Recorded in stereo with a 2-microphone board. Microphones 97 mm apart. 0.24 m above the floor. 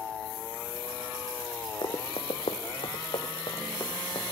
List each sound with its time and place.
1.8 s running footsteps: 50° left (ahead or behind), 0.7 m; by 4.2 s 40° left (ahead or behind), 1.5 m